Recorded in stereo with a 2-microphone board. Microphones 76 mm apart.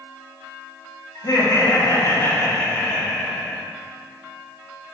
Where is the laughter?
50° left (ahead or behind), 2 m; by 3.6 s 10° left (ahead or behind), 1.7 m.